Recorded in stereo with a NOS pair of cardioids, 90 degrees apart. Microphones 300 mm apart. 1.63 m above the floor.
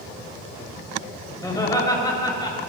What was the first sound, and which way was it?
Laughter, 10° left.